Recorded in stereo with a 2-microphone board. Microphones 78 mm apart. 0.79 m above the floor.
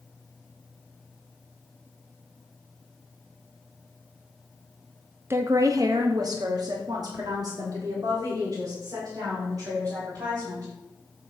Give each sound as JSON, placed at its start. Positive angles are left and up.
{"t": 5.3, "sound": "a woman speaking", "side_deg": -30, "distance_m": 0.6}